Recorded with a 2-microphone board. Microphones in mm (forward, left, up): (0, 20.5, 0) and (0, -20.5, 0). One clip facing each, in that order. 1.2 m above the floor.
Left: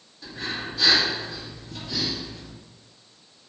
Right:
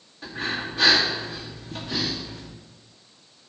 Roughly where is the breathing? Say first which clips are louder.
Right 3 dB; right.